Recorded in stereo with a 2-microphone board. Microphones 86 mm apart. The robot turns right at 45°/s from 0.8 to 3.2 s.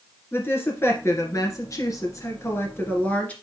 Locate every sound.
0.3 s a woman speaking: 50° left, 1.9 m; by 3.3 s 155° left, 1.9 m